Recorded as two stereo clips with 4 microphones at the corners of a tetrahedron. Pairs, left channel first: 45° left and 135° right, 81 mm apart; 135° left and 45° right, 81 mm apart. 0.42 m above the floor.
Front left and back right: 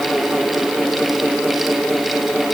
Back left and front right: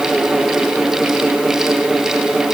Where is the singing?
I don't hear singing.